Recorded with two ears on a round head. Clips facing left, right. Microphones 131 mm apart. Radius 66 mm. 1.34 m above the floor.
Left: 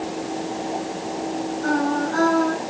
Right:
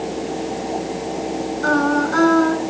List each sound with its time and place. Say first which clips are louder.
1.6 s singing: right 4 dB; 70° right (ahead or behind), 6.5 m